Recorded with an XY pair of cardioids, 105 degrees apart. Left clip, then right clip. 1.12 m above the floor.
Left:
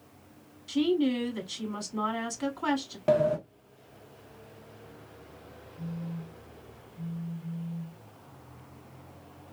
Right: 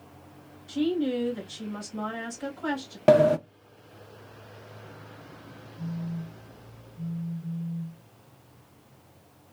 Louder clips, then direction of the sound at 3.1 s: Right 6 dB; 55° right.